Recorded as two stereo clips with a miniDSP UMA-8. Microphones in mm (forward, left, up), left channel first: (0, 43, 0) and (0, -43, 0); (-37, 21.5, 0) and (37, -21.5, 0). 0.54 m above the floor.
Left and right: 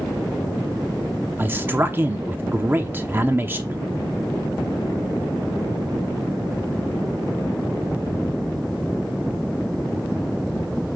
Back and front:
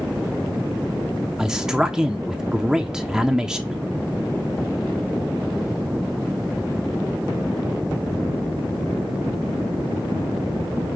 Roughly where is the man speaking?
Right.